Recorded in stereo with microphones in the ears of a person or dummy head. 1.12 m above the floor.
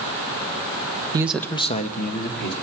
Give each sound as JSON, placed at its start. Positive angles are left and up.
{"t": 1.1, "sound": "a man speaking", "side_deg": -15, "distance_m": 0.6}